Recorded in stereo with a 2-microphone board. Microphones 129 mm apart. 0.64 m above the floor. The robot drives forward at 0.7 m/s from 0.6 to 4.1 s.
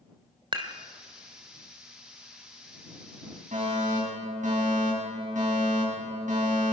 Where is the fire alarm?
70° right (ahead or behind), 8 m; by 6.7 s 75° right (ahead or behind), 7.5 m.